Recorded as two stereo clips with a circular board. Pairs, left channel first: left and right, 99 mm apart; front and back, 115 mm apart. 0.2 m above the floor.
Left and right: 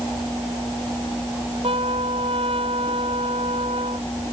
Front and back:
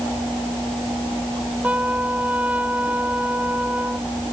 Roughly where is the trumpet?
Right.